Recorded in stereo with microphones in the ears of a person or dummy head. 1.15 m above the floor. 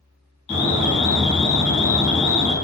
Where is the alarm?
35° left (ahead or behind), 1.5 m.